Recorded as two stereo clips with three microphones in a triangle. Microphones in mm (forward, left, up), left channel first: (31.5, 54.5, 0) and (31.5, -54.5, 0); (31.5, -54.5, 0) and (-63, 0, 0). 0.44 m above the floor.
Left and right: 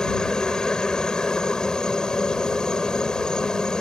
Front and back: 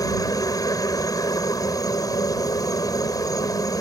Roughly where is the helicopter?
Ahead.